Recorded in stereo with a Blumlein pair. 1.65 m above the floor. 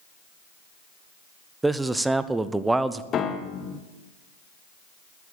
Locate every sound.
1.6 s a man speaking: 5° right, 0.7 m
3.1 s a piano: 25° left, 1.0 m